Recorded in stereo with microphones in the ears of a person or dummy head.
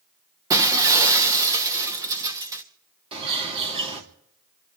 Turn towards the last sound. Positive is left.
turn(degrees=-30)  # may be behind; listen again after turning